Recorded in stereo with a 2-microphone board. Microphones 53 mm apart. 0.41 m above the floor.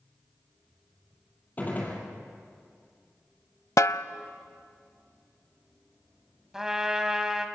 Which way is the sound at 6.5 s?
10° right (ahead or behind).